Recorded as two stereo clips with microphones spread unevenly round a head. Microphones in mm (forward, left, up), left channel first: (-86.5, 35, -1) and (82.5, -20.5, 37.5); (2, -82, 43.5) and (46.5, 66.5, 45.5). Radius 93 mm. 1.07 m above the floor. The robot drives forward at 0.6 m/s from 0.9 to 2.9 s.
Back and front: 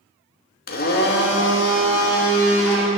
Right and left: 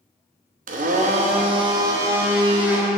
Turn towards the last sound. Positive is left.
turn(degrees=155)